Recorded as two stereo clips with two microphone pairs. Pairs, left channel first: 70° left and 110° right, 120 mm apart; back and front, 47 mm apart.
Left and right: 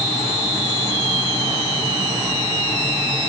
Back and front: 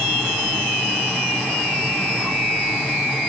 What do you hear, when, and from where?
Only background noise.